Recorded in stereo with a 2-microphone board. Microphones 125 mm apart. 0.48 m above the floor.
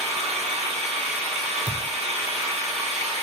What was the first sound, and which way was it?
An engine running, 60° right (ahead or behind).